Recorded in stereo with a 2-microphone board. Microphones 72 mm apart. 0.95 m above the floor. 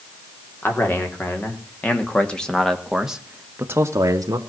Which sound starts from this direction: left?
A man speaking, at 0.6 s.